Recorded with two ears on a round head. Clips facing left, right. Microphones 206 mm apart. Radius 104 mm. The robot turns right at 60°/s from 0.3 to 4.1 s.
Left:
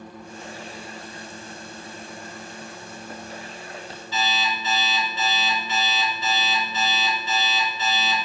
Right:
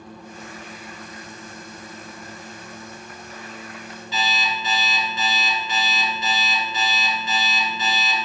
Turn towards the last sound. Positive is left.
turn(degrees=-60)  # may be behind; listen again after turning